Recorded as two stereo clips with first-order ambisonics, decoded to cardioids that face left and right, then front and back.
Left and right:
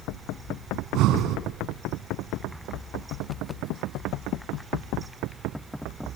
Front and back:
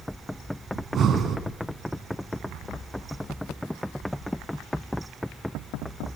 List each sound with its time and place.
0.8 s breathing: 125° right, 2.5 m